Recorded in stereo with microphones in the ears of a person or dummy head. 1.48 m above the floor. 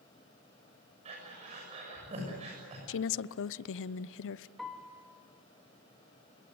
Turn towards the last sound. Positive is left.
turn(degrees=0)  # may be behind; listen again after turning